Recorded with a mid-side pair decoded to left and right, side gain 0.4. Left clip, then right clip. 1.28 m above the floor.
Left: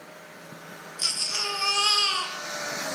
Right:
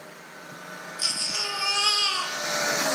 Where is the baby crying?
5° left, 0.5 m.